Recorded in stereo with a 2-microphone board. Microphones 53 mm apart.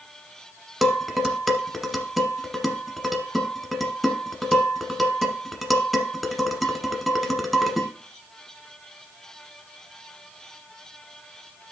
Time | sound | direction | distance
0.8 | dishes clattering | centre (ahead or behind) | 1.1 m